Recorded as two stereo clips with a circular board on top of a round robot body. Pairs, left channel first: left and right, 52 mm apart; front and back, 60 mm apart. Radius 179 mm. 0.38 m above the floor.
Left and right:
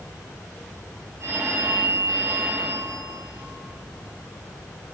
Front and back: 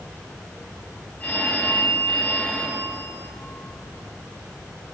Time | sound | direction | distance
1.2 | a phone ringing | 65° right | 3 m